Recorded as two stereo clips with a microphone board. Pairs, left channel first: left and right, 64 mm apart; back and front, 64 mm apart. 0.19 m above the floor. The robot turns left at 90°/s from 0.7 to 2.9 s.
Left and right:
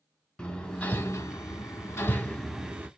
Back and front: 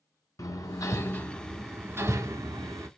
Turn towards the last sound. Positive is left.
turn(degrees=-35)